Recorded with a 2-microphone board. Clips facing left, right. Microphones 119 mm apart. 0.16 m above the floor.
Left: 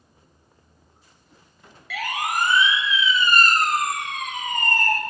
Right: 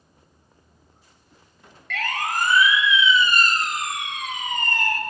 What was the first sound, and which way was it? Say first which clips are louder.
A siren: even; 5° left (ahead or behind).